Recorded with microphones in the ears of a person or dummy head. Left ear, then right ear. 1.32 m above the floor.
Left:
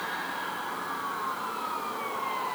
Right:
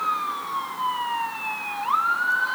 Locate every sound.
Only background noise.